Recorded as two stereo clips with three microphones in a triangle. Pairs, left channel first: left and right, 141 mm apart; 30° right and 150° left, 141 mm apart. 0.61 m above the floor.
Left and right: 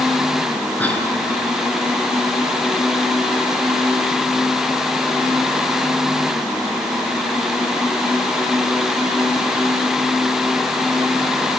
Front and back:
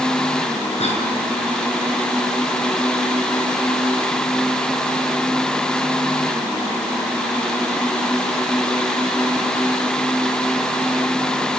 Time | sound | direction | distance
0.8 | a cough | 10° left | 7.5 m